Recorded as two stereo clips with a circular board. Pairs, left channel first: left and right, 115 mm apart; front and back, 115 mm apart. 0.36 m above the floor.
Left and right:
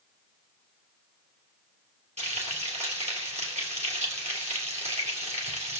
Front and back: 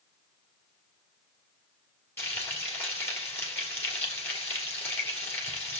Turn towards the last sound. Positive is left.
turn(degrees=-70)